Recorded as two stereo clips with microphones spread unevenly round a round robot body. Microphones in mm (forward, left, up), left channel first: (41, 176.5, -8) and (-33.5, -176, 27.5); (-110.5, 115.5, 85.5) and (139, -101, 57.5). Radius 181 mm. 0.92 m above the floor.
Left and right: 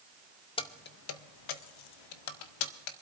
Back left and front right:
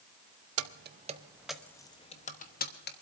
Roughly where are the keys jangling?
Ahead.